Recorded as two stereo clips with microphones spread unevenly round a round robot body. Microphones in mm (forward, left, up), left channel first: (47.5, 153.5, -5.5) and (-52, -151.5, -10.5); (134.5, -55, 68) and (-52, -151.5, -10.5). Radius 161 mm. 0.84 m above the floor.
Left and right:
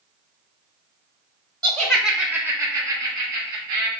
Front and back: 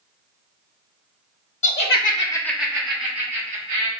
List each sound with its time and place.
1.6 s laughter: 15° right, 1.0 m; by 3.9 s 175° left, 1.9 m